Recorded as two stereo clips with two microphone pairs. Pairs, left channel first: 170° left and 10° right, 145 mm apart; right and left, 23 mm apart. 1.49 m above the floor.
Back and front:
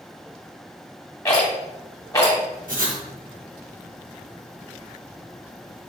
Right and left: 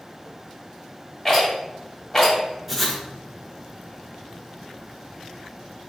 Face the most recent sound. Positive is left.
turn(degrees=0)